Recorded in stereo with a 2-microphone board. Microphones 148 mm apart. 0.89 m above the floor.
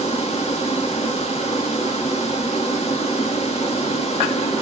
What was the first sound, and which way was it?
Running water, 50° left (ahead or behind).